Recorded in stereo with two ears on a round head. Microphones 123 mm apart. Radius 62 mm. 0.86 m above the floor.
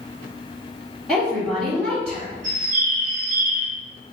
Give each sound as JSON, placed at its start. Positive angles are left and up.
{"t": 1.1, "sound": "a woman speaking", "side_deg": -5, "distance_m": 1.0}
{"t": 2.4, "sound": "a bird", "side_deg": -60, "distance_m": 1.1}